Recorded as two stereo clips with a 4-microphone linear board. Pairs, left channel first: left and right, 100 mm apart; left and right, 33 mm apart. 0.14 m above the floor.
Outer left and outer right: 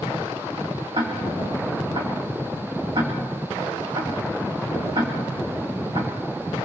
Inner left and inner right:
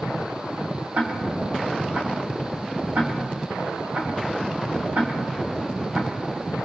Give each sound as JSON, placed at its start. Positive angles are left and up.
{"t": 0.9, "sound": "ticking", "side_deg": -55, "distance_m": 3.0}